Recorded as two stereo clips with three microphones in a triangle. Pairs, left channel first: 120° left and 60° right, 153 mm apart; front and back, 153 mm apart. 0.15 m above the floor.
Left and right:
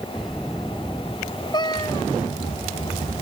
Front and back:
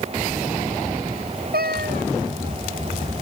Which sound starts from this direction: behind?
A cat meowing, at 1.5 s.